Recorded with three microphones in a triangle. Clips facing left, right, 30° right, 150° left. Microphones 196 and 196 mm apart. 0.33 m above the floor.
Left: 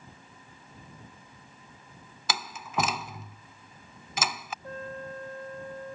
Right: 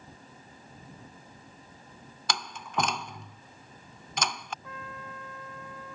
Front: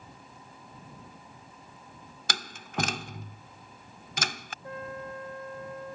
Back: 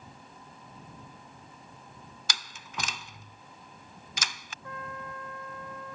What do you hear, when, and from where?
2.3 s a door slam: 5° left
4.6 s a trumpet: 35° left